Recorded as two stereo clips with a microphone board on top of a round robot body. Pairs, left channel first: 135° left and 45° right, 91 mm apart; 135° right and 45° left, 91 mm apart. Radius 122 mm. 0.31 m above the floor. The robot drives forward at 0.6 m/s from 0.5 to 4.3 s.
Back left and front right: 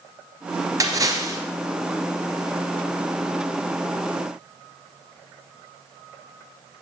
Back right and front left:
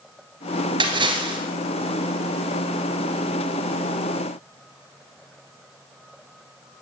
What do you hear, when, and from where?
0.8 s a splash: 10° left, 2.5 m